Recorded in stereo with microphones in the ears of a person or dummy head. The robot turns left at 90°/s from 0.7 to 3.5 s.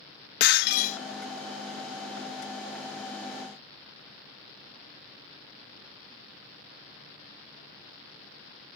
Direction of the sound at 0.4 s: 60° left (ahead or behind).